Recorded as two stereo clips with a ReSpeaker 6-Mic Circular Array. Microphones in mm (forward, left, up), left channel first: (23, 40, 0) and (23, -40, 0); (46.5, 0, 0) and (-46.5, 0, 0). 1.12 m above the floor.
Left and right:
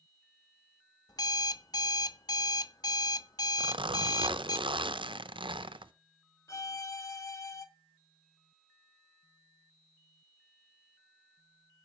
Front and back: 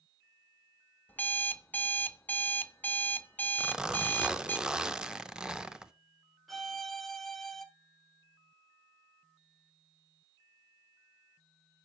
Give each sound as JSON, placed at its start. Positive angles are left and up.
{"t": 1.1, "sound": "an alarm clock", "azimuth_deg": 70, "distance_m": 0.5}
{"t": 3.6, "sound": "a zipper", "azimuth_deg": -100, "distance_m": 0.6}
{"t": 6.5, "sound": "a violin", "azimuth_deg": 90, "distance_m": 0.9}